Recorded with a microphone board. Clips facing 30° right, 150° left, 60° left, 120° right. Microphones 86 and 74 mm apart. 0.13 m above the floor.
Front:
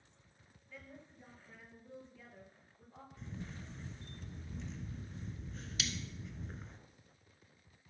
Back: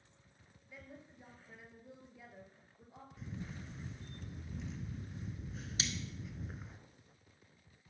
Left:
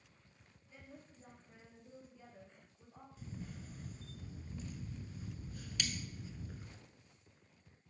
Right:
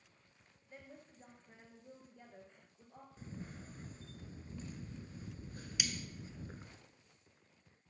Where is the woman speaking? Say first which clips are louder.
Even, right 1 dB; 140° right, 2.5 m.